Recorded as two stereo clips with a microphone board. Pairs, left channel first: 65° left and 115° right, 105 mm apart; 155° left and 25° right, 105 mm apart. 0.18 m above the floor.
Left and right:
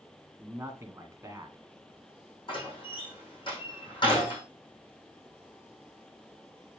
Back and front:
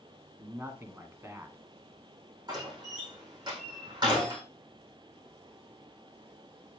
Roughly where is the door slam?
Ahead left.